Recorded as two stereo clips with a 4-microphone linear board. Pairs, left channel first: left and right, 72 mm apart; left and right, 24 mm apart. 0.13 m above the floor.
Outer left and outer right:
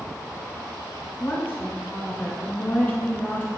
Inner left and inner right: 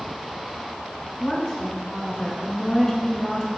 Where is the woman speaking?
25° left (ahead or behind), 1.1 m.